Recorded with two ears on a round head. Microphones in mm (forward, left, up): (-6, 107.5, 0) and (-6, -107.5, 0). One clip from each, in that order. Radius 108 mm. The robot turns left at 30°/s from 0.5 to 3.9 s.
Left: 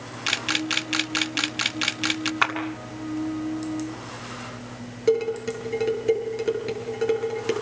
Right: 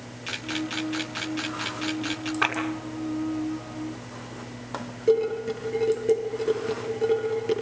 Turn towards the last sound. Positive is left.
turn(degrees=45)  # may be behind; listen again after turning